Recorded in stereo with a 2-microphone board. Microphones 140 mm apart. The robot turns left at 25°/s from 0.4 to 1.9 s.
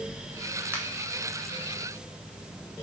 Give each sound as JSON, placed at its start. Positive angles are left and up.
{"t": 0.7, "sound": "a finger snap", "side_deg": -20, "distance_m": 0.9}